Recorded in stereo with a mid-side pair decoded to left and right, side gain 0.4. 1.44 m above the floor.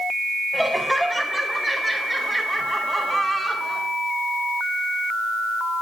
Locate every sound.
0.5 s laughter: 5° right, 3.5 m; by 3.9 s 30° right, 4.5 m